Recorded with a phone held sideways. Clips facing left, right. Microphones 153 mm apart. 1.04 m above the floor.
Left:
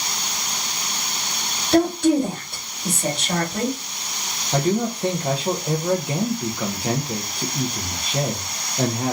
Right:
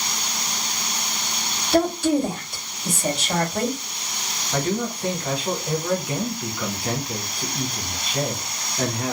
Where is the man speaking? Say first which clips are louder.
Left 4 dB; 25° left (ahead or behind), 0.6 m.